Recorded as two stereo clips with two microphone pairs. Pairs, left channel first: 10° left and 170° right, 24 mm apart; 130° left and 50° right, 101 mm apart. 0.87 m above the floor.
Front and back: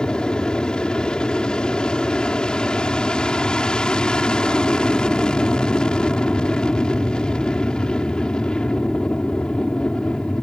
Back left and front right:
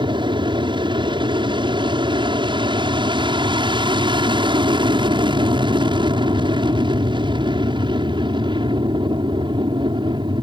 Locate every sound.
0.0 s an aircraft: 30° right